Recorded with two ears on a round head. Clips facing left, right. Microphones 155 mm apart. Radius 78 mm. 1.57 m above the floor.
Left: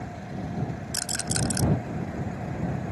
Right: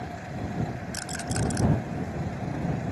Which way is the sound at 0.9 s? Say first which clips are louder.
Right 1 dB; 45° left (ahead or behind).